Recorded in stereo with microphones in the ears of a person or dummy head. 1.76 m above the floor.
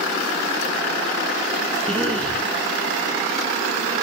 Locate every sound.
1.9 s a cough: 5° left (ahead or behind), 1.3 m